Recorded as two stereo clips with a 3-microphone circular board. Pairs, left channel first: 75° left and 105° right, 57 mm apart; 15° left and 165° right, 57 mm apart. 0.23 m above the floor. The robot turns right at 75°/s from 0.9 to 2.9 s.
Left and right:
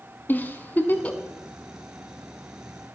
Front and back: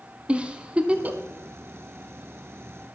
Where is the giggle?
125° left, 0.7 m; by 1.2 s 150° left, 0.7 m.